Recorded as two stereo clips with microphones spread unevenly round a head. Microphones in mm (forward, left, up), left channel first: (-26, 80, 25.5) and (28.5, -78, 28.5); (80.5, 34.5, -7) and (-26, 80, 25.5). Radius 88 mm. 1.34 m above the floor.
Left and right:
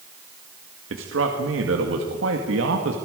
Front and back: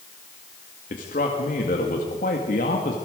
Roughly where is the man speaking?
Ahead right.